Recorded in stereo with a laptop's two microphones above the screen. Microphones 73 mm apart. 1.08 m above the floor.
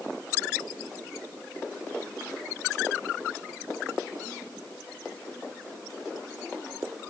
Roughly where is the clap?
I don't hear a clap.